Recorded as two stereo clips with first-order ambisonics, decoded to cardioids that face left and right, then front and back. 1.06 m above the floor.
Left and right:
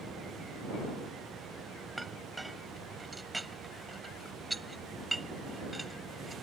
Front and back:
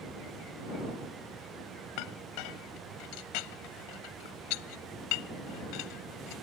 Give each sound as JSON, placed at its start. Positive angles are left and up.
{"t": 2.0, "sound": "a clink", "azimuth_deg": -5}